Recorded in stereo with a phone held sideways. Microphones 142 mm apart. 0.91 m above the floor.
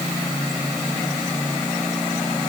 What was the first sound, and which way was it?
Only background noise.